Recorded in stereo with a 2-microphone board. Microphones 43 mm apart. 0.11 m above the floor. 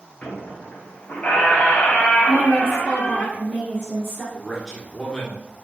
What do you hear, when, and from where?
0.2 s a squeak: 35° left (ahead or behind), 0.7 m
2.3 s a woman speaking: 10° left (ahead or behind), 1.9 m
4.3 s a man speaking: 5° left (ahead or behind), 1.1 m